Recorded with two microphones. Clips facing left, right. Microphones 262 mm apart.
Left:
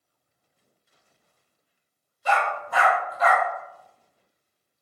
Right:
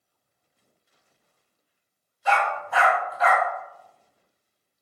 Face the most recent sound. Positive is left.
turn(degrees=45)  # may be behind; listen again after turning